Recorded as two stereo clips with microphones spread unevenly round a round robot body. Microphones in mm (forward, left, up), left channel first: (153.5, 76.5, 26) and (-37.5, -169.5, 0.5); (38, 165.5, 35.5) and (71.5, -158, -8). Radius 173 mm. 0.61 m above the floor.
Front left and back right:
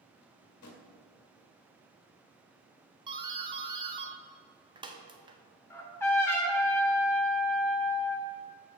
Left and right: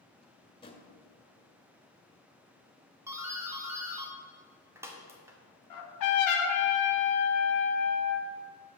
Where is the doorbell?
120° right, 1.0 m.